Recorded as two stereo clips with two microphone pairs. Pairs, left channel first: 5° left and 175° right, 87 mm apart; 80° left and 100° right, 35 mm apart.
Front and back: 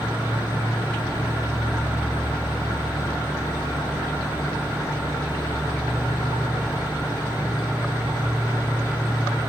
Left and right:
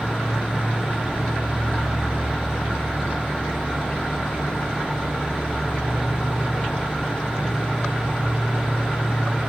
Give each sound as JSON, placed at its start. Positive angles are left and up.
{"t": 0.0, "sound": "an insect", "azimuth_deg": 130, "distance_m": 4.5}